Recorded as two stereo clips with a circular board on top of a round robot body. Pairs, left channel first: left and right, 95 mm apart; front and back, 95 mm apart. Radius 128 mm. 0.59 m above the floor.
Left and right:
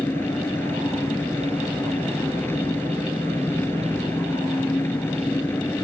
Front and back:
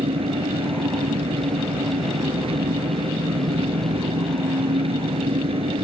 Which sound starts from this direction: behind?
An engine running, at 0.0 s.